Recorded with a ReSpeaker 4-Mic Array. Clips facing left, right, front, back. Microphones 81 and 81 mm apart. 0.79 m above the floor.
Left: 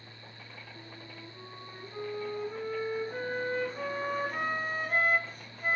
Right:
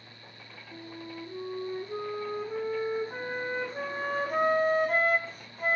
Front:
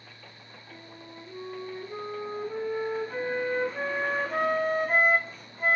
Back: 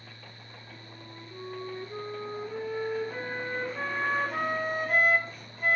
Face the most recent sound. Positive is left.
turn(degrees=-55)